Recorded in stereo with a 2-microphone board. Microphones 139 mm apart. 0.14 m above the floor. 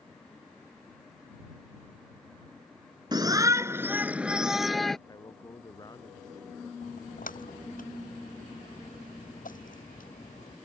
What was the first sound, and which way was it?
A shout, 30° right (ahead or behind).